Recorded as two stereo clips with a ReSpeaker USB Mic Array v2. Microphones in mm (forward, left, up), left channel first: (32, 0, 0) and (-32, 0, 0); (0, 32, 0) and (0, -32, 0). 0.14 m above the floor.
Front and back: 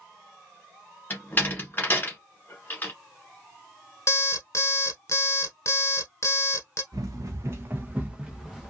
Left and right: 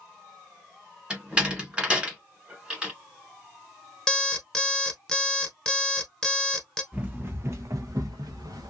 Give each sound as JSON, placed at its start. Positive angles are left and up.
{"t": 1.1, "sound": "a door slam", "azimuth_deg": -25, "distance_m": 1.3}
{"t": 4.1, "sound": "an alarm clock", "azimuth_deg": 10, "distance_m": 0.8}
{"t": 6.9, "sound": "running footsteps", "azimuth_deg": -160, "distance_m": 0.7}